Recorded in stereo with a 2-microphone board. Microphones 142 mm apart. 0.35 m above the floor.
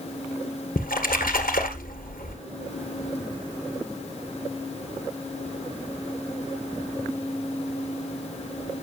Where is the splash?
90° left, 1.9 m.